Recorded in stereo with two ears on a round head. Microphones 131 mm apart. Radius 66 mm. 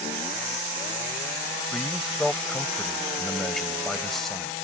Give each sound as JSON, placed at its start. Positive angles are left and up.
{"t": 1.7, "sound": "a man speaking", "side_deg": 0}